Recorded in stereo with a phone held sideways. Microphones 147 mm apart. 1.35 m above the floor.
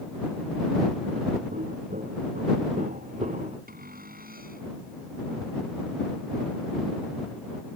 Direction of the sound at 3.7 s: 85° right.